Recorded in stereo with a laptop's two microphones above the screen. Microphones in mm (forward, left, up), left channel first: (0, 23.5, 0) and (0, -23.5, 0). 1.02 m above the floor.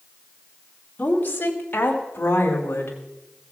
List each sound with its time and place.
1.0 s a woman speaking: 40° left (ahead or behind), 2 m; by 3.0 s 55° left (ahead or behind), 3.5 m